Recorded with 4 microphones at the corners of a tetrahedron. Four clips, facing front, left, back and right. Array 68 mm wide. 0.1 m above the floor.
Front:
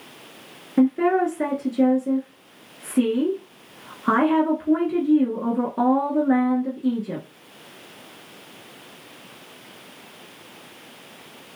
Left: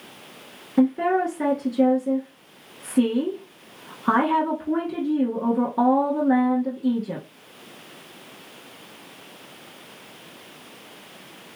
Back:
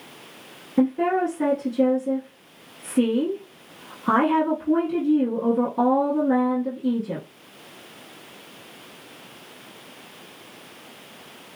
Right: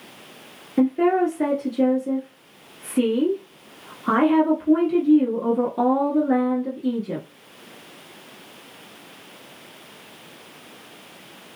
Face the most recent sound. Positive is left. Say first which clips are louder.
# right 1 dB, front 2 dB
turn(degrees=20)